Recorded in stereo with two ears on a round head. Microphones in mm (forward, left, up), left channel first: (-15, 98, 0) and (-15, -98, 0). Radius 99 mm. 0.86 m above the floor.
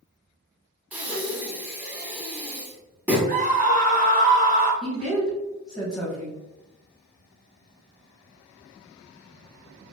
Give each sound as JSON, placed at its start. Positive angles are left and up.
{"t": 0.9, "sound": "breathing", "side_deg": -5, "distance_m": 0.8}
{"t": 3.3, "sound": "a scream", "side_deg": -40, "distance_m": 0.6}
{"t": 4.8, "sound": "a woman speaking", "side_deg": 5, "distance_m": 1.3}